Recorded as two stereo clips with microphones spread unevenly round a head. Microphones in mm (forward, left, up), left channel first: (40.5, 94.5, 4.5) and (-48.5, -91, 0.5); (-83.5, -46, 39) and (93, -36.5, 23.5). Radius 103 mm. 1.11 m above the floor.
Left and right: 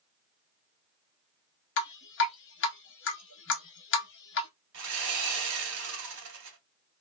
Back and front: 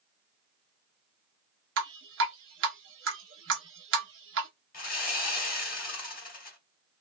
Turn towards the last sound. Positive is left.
turn(degrees=-145)